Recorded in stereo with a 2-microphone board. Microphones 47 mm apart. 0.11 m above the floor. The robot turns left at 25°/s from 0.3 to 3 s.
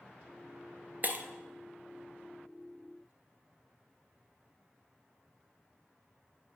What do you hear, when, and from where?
1.0 s breaking glass: 45° right (ahead or behind), 0.9 m